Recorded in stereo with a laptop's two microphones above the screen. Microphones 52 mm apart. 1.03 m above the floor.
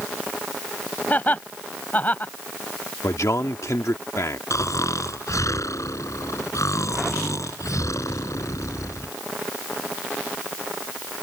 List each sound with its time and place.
1.1 s laughter: 30° left (ahead or behind)
3.0 s a man speaking: 85° left
4.5 s snoring: 80° left